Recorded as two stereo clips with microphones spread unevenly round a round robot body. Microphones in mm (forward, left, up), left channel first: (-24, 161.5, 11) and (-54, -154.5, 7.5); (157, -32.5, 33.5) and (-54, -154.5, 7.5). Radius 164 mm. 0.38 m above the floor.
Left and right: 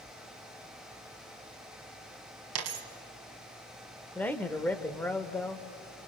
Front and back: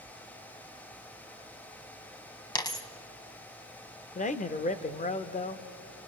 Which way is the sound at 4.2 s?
5° left.